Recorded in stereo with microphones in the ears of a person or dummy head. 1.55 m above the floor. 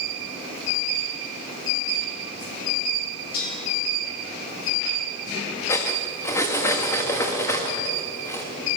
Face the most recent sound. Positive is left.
turn(degrees=20)  # may be behind; listen again after turning